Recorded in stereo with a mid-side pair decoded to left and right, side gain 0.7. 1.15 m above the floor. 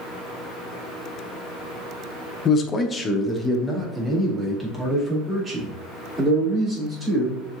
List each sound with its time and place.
2.5 s a man speaking: 40° left, 0.7 m; by 7.4 s 15° right, 3.5 m